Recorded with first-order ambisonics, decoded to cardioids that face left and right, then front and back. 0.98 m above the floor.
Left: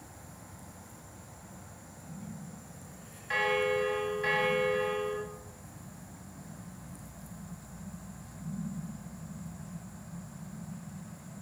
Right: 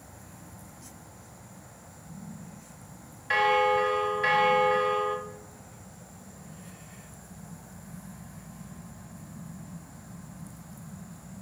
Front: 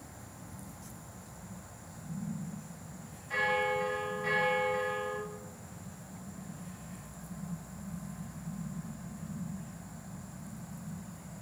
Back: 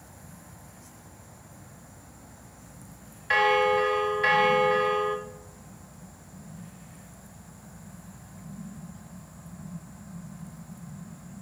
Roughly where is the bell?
Behind.